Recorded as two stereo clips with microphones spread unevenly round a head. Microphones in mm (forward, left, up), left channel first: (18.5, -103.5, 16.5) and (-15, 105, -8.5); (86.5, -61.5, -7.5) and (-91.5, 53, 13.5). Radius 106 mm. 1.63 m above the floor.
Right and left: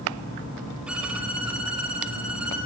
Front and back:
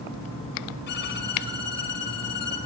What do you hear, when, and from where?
0.9 s a violin: 10° left, 4.5 m